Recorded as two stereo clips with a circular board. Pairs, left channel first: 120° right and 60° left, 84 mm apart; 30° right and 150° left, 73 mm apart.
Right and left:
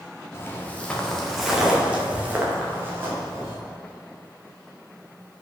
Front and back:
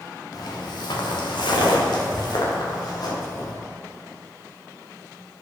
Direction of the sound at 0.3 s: 60° right.